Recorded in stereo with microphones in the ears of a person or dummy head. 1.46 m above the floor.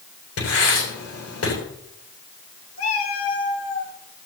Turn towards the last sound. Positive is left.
turn(degrees=60)  # may be behind; listen again after turning